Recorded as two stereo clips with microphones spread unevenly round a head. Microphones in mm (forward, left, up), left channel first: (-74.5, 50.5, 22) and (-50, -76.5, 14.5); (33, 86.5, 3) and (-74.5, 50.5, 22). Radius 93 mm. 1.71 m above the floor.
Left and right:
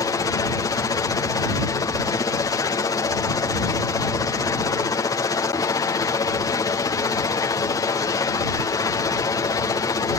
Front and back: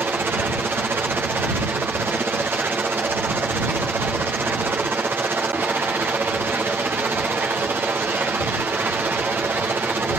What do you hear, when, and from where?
0.0 s a helicopter: 130° left